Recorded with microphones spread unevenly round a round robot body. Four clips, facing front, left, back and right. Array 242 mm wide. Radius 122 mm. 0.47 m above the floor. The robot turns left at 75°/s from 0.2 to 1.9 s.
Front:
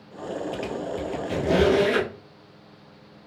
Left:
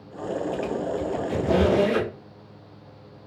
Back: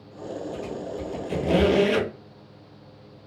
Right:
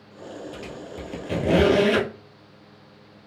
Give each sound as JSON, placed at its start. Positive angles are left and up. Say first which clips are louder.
{"t": 0.5, "sound": "a squeak", "louder": "left 10 dB, front 2 dB", "azimuth_deg": -10, "distance_m": 1.2}